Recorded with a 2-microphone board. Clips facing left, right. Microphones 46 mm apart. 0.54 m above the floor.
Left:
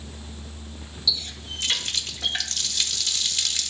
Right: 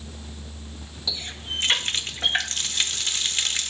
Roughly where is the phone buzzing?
I don't hear a phone buzzing.